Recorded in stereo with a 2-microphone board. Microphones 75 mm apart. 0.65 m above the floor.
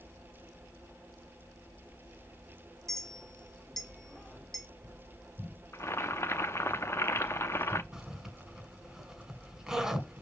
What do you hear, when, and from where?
2.9 s a clink: 5° left (ahead or behind), 1.0 m
5.7 s boiling: 35° left (ahead or behind), 0.5 m
7.9 s a zipper: 10° right (ahead or behind), 1.6 m